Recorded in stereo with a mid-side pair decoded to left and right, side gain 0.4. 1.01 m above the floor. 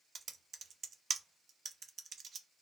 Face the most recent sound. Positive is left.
turn(degrees=-50)